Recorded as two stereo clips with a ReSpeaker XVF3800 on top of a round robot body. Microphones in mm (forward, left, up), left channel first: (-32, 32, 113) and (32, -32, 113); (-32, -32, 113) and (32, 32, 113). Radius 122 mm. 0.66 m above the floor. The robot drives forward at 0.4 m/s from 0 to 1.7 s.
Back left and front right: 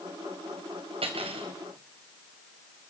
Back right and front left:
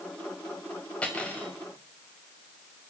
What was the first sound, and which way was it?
Cutlery clinking, 60° right.